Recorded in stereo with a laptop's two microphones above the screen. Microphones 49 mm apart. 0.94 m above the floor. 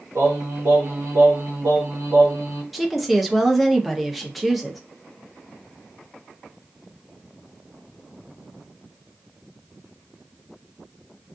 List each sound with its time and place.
0.1 s singing: 70° right (ahead or behind), 1.1 m
2.7 s a woman speaking: centre (ahead or behind), 0.8 m